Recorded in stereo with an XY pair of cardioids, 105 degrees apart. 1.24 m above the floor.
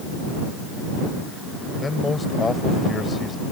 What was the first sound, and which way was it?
A man speaking, 25° left.